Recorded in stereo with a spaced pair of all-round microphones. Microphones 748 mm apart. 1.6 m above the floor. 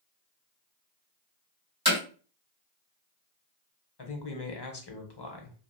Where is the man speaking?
35° left (ahead or behind), 0.8 m.